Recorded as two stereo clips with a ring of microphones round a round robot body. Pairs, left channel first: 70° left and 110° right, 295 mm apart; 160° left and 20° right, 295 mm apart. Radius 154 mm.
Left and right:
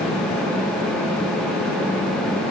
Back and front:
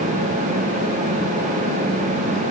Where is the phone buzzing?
I don't hear a phone buzzing.